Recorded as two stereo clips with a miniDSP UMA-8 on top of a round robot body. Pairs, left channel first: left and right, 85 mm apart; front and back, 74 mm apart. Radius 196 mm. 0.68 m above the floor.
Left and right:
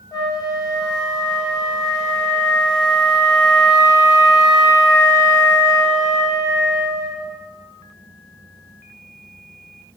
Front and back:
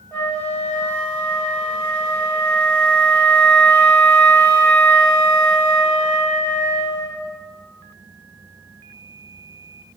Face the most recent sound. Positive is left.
turn(degrees=65)